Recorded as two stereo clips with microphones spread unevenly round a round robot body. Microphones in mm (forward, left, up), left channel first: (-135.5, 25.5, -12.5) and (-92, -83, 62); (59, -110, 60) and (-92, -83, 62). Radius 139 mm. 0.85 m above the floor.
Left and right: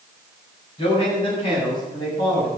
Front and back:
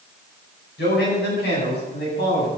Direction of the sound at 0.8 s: Straight ahead.